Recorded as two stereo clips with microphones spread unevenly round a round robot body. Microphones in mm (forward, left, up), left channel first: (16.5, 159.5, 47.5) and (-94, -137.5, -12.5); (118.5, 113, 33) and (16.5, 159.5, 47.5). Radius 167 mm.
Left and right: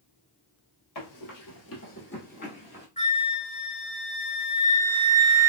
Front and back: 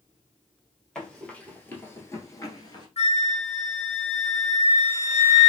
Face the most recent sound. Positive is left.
turn(degrees=0)